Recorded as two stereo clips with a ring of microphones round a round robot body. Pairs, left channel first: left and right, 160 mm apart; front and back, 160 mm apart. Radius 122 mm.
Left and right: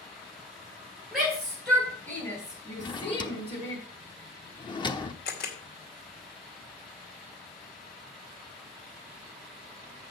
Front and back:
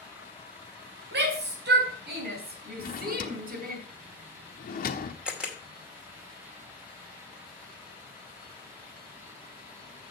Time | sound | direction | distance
1.1 | a shout | 175° right | 3.5 m
2.8 | a drawer | 30° left | 1.1 m
5.2 | a camera shutter | 95° left | 2.5 m